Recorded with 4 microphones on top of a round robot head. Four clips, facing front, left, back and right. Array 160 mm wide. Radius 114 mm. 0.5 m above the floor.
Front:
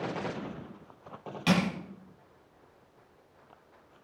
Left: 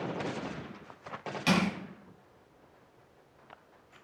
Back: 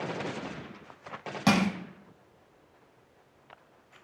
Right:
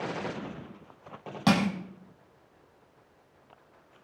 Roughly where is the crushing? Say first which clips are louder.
Right 4 dB, back 2 dB; behind right.